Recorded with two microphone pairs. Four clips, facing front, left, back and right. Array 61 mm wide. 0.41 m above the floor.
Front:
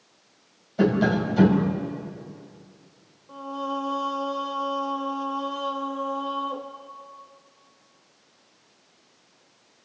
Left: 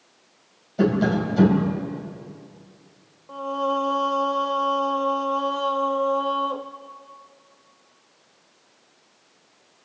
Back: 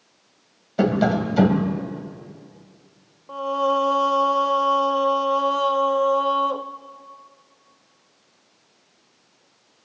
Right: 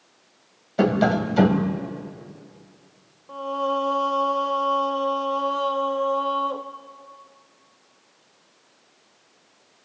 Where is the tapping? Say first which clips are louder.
Right 1 dB, back 2 dB; 125° right, 3 m.